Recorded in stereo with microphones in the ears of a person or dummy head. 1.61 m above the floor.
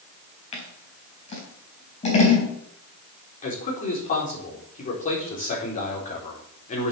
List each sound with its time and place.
0.5 s scissors: 40° left (ahead or behind), 4 m
3.4 s a man speaking: 40° left (ahead or behind), 4.5 m